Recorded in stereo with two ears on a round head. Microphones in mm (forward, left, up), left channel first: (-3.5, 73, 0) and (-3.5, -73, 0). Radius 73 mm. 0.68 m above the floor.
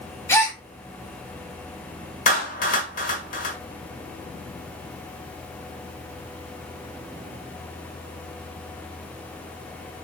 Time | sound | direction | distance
0.3 | a gasp | 15° left (ahead or behind) | 0.9 m
2.3 | a clap | 55° left (ahead or behind) | 1.0 m